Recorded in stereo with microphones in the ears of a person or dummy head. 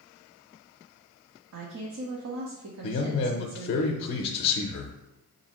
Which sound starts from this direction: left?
A man speaking, at 2.8 s.